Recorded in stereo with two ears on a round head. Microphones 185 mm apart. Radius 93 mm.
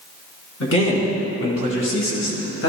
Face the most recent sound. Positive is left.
turn(degrees=65)  # may be behind; listen again after turning